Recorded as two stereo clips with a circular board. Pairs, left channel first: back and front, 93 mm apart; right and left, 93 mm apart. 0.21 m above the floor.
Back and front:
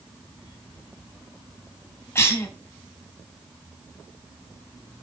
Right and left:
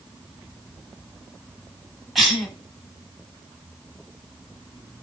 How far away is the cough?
About 1.1 m.